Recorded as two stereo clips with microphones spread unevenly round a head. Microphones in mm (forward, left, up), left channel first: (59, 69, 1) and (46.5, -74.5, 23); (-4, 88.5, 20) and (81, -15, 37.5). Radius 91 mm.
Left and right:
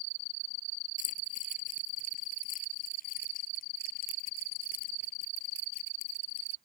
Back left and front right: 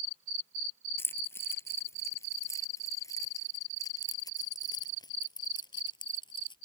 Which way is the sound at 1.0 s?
55° left.